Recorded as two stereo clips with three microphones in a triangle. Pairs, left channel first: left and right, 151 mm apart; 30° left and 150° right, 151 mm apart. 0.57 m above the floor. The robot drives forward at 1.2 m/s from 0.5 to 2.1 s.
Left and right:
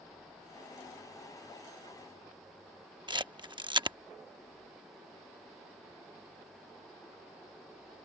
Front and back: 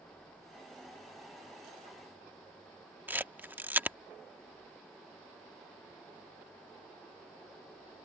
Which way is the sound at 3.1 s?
85° right.